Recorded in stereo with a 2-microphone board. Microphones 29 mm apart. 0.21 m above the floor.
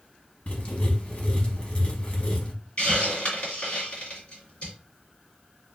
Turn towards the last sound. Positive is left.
turn(degrees=45)  # may be behind; listen again after turning